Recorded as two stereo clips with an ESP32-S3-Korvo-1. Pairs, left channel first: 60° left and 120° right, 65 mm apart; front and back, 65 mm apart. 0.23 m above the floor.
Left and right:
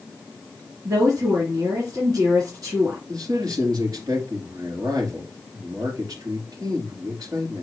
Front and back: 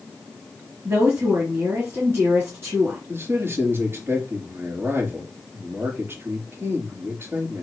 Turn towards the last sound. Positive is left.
turn(degrees=-130)